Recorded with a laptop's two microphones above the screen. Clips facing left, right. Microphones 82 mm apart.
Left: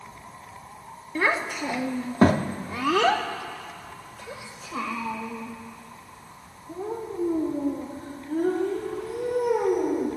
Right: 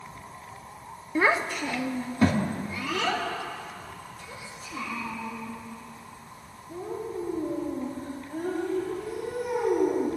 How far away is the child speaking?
About 0.7 m.